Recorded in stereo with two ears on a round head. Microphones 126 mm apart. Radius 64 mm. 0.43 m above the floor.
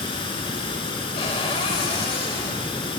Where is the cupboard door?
35° left (ahead or behind), 1.0 m.